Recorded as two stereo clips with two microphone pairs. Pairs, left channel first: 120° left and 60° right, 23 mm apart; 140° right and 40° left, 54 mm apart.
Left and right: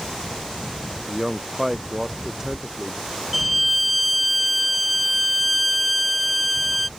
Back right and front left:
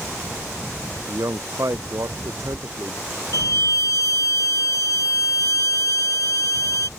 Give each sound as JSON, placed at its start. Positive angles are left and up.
{"t": 1.1, "sound": "a man speaking", "azimuth_deg": 20}
{"t": 3.3, "sound": "a violin", "azimuth_deg": -140}